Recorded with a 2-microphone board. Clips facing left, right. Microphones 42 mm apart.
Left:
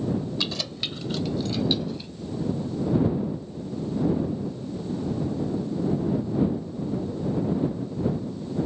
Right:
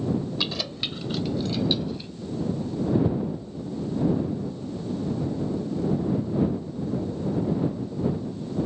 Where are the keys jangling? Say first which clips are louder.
Right 1 dB; 5° right (ahead or behind); by 2.1 s centre (ahead or behind).